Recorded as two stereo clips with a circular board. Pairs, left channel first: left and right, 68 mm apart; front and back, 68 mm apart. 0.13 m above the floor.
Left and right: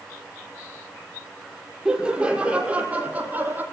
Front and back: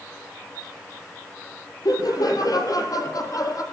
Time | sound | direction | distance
1.9 | laughter | 15° right | 4.5 m